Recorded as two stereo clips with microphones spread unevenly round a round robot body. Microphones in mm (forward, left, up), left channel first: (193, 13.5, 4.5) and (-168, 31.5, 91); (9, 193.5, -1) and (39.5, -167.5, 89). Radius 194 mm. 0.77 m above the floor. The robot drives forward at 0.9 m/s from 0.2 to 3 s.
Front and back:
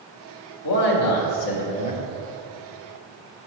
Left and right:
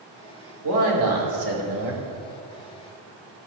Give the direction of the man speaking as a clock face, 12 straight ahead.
1 o'clock.